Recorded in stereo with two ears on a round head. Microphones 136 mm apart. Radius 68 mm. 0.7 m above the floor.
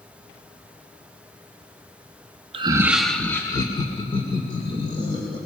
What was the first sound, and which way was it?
Laughter, 35° right (ahead or behind).